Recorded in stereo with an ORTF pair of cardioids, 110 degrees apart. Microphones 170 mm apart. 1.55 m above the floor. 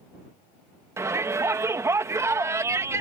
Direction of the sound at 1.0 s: 15° right.